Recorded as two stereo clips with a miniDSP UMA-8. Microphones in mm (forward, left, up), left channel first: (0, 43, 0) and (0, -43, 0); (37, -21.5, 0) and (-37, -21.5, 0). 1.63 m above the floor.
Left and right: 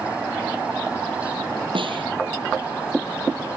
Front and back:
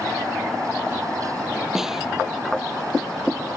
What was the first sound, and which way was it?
A snare drum, 95° right.